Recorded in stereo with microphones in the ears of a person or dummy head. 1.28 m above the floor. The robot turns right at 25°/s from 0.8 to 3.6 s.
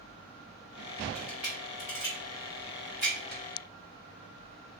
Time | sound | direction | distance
1.1 | a camera shutter | 10° right (ahead or behind) | 0.6 m